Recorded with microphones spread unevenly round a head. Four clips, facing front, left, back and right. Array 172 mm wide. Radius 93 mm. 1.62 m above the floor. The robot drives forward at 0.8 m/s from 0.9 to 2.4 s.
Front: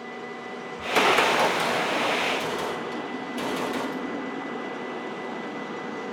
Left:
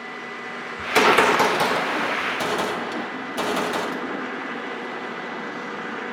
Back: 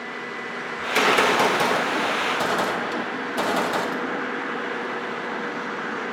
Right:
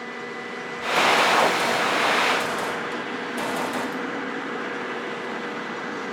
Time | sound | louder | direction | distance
0.8 | a gunshot | left 3 dB, back 1 dB | 95° left | 0.6 m